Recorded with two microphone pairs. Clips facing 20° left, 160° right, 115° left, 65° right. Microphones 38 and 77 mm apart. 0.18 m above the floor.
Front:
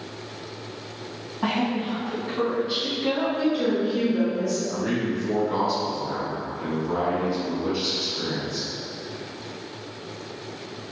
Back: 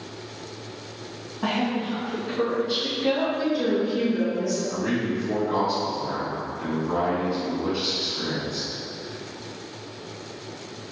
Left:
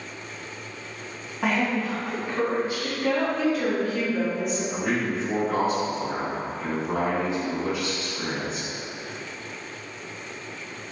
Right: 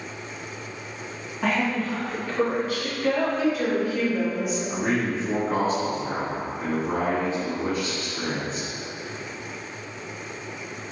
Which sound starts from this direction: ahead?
A woman speaking, at 3.4 s.